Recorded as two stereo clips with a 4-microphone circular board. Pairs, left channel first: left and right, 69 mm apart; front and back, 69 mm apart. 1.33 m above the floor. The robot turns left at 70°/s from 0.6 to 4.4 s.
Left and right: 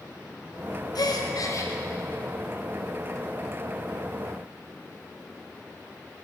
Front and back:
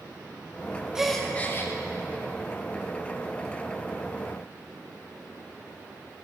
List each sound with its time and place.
0.9 s a gasp: 100° left, 0.6 m; by 1.7 s 45° left, 0.6 m